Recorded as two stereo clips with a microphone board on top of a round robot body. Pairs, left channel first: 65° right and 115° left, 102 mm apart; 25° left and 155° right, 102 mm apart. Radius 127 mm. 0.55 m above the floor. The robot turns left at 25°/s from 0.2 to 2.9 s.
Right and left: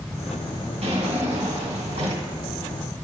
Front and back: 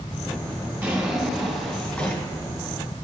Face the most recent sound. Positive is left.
turn(degrees=80)